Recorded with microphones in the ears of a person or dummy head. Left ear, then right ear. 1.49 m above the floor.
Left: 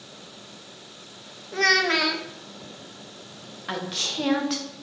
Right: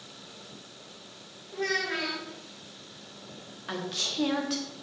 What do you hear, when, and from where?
1.5 s a child speaking: 65° left (ahead or behind), 0.5 m
3.7 s a woman speaking: 10° left (ahead or behind), 0.6 m